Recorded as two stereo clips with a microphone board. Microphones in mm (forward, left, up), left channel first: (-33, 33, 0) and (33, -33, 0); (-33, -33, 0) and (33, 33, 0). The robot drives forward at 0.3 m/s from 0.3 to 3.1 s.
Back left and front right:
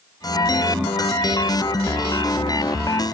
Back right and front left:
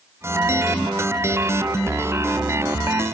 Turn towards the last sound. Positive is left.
No sound to turn to.